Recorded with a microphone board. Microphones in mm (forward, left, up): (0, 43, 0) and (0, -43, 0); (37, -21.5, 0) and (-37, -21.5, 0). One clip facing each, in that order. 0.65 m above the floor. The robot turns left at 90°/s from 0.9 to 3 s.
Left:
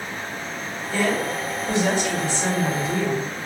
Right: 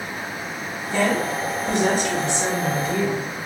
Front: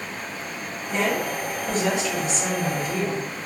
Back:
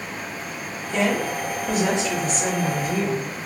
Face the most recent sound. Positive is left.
turn(degrees=145)